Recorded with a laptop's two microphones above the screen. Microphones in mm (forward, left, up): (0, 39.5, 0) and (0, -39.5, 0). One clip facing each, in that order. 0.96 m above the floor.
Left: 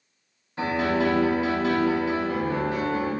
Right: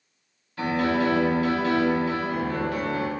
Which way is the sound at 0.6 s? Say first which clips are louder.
Even; 25° left (ahead or behind).